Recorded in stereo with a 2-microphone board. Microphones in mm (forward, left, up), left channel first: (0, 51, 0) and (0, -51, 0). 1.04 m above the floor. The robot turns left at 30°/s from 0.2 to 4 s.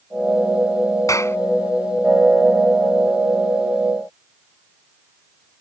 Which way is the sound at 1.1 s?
35° left (ahead or behind).